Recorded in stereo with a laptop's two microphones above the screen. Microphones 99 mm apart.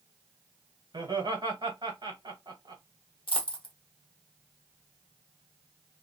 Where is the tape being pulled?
No tape being pulled in this recording.